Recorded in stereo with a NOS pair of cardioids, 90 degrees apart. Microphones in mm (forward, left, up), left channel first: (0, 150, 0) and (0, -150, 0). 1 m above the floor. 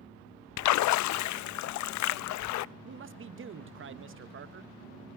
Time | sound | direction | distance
0.6 | a splash | 70° left | 0.5 m
2.9 | a man speaking | 45° right | 0.9 m